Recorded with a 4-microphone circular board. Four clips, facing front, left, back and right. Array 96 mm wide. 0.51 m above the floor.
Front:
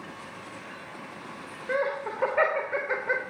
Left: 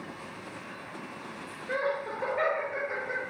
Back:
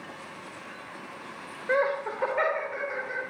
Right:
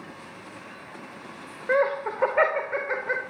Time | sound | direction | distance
1.7 | laughter | 110° right | 2 m